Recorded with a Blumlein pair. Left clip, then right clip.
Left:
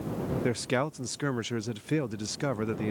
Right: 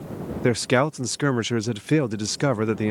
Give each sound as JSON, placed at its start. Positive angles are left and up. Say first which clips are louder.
{"t": 0.4, "sound": "a man speaking", "louder": "right 10 dB", "azimuth_deg": -65}